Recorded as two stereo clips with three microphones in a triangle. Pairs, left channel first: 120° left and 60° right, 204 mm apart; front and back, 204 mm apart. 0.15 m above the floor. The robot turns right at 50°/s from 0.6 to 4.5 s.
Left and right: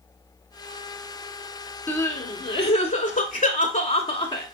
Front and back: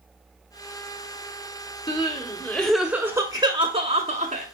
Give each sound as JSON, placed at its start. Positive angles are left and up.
{"t": 1.9, "sound": "crying", "azimuth_deg": 45, "distance_m": 0.9}